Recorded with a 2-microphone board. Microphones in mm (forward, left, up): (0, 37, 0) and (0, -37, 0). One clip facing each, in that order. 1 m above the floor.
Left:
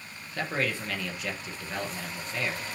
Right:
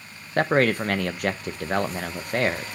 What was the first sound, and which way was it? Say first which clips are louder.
A man speaking: right 10 dB; 55° right (ahead or behind).